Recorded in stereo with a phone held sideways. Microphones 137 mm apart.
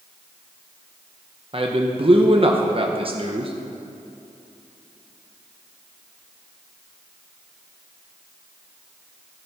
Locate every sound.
1.5 s a man speaking: 40° right (ahead or behind), 1.0 m